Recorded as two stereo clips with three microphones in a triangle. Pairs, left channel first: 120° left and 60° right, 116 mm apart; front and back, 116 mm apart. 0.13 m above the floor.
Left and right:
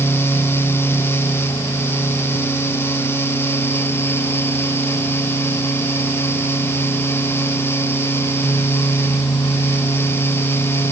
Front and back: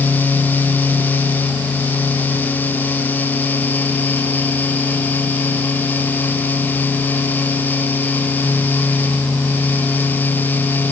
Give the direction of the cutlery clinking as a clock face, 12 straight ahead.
No cutlery clinking in this recording.